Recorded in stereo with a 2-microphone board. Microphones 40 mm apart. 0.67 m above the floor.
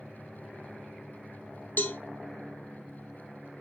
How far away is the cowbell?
About 0.6 m.